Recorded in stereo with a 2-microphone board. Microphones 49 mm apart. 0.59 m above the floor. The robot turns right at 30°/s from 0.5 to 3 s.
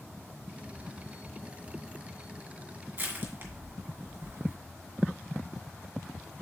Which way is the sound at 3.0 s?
45° right (ahead or behind).